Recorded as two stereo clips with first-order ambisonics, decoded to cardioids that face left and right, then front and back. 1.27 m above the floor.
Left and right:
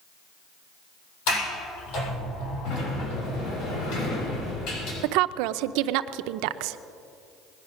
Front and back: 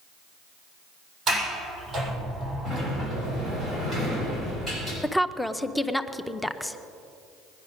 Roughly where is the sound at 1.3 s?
Left.